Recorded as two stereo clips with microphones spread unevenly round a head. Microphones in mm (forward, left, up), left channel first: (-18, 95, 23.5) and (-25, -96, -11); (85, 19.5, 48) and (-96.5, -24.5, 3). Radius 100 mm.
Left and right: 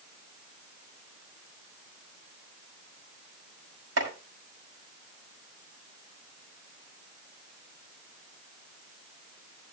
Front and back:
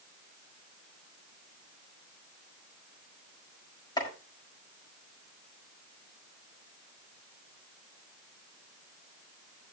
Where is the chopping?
55° right, 5 m.